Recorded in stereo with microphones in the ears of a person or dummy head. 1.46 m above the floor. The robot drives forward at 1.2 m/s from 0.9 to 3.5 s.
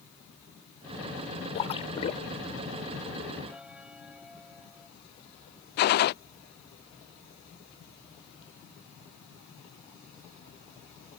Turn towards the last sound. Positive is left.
turn(degrees=55)  # may be behind; listen again after turning